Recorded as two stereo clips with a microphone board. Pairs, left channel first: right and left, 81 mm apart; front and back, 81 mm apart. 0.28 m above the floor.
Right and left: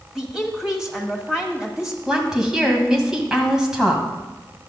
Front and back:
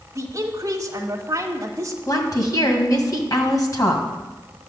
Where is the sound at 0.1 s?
170° left, 1.4 m.